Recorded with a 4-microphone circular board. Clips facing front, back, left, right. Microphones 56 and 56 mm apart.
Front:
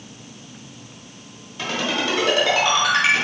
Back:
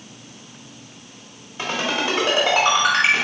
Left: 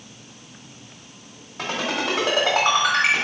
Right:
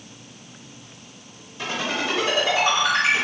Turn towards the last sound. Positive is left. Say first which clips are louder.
# back 1 dB, left 1 dB
turn(degrees=120)